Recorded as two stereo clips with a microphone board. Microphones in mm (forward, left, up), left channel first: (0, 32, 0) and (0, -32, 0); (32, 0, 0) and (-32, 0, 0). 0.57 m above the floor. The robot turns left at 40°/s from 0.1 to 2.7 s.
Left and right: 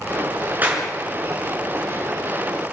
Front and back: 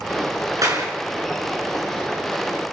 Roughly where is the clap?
Behind right.